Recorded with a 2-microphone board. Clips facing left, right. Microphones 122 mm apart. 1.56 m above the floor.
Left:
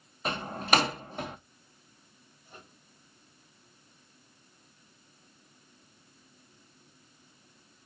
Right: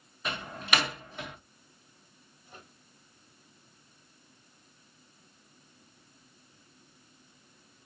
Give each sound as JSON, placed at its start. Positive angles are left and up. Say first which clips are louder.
{"t": 0.2, "sound": "a door slam", "louder": "left 4 dB", "side_deg": 40, "distance_m": 0.7}
{"t": 2.5, "sound": "a microwave", "louder": "even", "side_deg": 0, "distance_m": 5.5}